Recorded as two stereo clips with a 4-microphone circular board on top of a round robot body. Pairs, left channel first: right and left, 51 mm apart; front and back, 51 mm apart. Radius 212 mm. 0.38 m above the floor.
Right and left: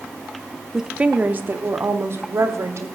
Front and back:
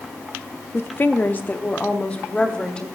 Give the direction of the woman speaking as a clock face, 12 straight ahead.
12 o'clock.